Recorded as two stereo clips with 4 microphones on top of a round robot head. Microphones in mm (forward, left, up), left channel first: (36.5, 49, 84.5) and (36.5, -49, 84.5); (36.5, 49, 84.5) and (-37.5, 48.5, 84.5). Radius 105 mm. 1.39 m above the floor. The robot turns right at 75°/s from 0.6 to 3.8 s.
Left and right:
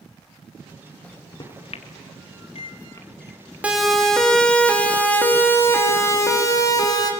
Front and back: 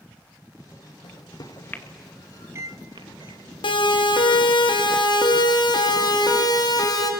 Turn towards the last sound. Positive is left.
turn(degrees=40)